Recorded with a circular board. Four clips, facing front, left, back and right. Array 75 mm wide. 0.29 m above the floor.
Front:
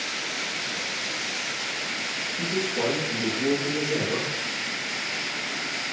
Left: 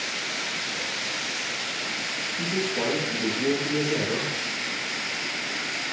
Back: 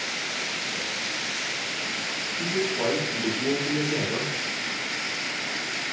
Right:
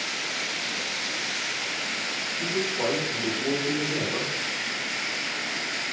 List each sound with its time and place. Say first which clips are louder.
2.4 s a man speaking: even, even; 50° left, 6 m